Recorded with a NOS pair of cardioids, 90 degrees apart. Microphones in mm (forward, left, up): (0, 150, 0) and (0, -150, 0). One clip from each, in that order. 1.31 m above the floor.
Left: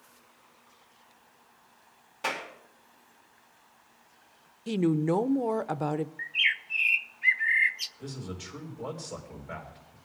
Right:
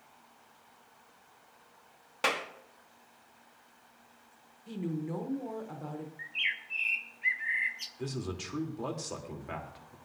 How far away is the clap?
About 2 m.